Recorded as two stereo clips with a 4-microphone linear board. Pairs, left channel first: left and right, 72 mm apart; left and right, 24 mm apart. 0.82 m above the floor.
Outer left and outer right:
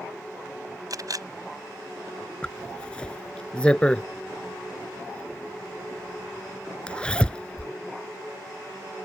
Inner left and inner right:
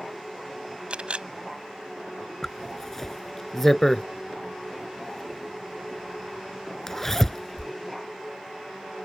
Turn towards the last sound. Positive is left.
turn(degrees=15)  # may be behind; listen again after turning